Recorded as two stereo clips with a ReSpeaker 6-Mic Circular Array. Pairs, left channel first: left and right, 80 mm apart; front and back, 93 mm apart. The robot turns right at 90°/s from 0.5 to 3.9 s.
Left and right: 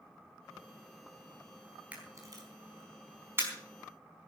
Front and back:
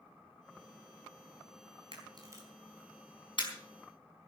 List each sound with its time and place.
1.9 s a camera shutter: 165° right, 4.5 m; by 3.5 s 20° right, 4.5 m